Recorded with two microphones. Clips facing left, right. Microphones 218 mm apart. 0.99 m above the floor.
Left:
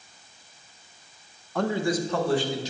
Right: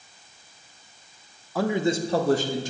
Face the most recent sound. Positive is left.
turn(degrees=-50)  # may be behind; listen again after turning